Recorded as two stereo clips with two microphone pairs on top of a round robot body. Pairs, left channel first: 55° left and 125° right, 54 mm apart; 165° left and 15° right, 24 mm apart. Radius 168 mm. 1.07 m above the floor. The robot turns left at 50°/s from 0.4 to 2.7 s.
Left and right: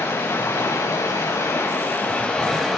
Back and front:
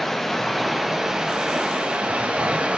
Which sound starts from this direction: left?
Running water, at 0.0 s.